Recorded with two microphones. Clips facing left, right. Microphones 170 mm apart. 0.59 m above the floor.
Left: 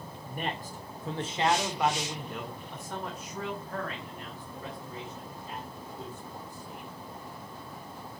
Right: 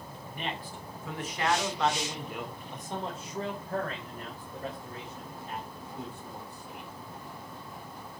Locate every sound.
0.3 s a man speaking: 50° left (ahead or behind), 2.0 m; by 6.9 s 60° right (ahead or behind), 4.5 m